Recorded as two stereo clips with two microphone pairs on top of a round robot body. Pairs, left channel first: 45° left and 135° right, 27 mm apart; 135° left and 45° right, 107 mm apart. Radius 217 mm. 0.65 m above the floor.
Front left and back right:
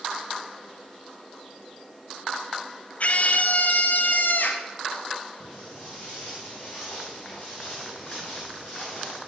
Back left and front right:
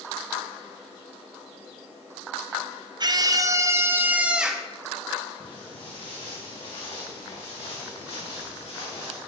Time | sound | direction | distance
3.0 | a scream | straight ahead | 1.7 m
5.4 | footsteps | 95° left | 3 m